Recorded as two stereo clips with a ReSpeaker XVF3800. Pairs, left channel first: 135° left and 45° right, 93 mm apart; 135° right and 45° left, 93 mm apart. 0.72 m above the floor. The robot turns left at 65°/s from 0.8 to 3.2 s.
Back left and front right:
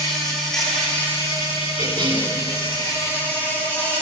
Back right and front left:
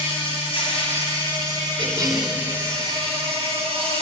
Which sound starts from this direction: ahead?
A cough, at 1.8 s.